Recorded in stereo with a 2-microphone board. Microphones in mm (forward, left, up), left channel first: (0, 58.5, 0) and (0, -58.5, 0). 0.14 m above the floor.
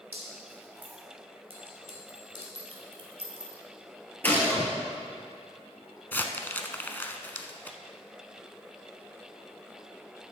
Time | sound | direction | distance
0.1 | dripping | 15° right (ahead or behind) | 4 m
1.5 | a clink | 55° right (ahead or behind) | 2 m
4.2 | a gunshot | 15° left (ahead or behind) | 1.7 m
6.1 | crumpling | 15° left (ahead or behind) | 0.7 m